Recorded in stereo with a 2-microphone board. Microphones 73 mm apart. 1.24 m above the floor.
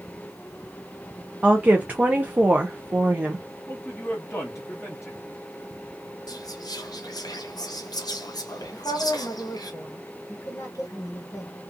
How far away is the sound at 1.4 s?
About 0.5 m.